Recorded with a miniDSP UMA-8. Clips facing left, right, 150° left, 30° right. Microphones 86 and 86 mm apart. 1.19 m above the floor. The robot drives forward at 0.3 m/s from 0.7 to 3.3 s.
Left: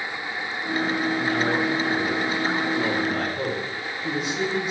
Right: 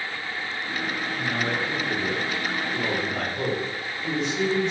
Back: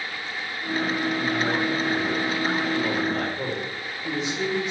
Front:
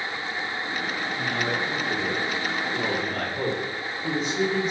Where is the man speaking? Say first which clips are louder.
Left 2 dB, back 3 dB; 10° left, 1.9 m; by 4.7 s 15° left, 1.3 m.